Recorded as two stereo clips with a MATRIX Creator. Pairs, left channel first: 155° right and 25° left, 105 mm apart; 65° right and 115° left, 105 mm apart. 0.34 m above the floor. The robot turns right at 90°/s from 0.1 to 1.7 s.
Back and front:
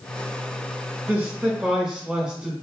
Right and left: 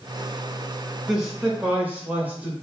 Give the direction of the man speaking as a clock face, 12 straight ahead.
11 o'clock.